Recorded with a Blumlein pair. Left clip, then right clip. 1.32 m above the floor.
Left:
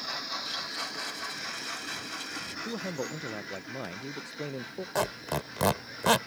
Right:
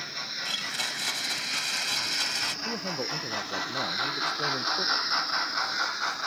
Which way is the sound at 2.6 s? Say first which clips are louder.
Right 4 dB; straight ahead.